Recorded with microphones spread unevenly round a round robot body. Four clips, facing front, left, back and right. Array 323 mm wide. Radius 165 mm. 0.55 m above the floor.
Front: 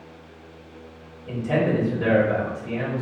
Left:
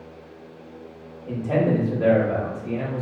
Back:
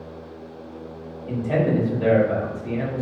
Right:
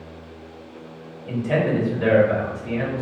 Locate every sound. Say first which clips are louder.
1.3 s a man speaking: even, back 1 dB; 150° left, 1.7 m